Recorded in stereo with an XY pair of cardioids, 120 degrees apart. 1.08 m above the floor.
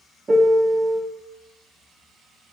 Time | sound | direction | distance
0.3 | a piano | 20° right | 0.7 m